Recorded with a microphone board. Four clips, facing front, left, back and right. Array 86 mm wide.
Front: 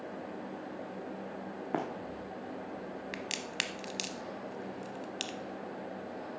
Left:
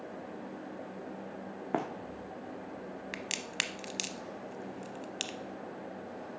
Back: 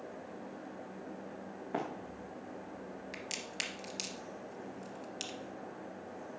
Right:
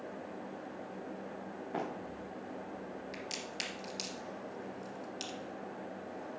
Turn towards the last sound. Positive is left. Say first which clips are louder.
# left 3 dB, front 4 dB
turn(degrees=55)